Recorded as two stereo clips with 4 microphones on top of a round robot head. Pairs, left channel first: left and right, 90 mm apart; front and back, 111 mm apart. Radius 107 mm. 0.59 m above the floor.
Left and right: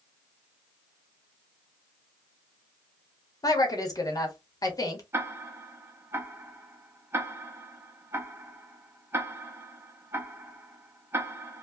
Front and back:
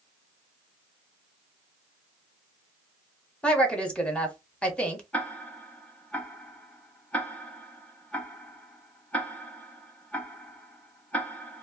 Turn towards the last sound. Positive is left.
turn(degrees=-60)